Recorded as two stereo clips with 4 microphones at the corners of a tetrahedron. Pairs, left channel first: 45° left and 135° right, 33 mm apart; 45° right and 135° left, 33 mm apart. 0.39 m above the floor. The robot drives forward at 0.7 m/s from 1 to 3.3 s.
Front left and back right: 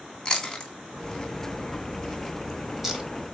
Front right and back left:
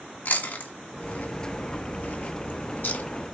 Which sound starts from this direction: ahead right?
Chewing, at 0.2 s.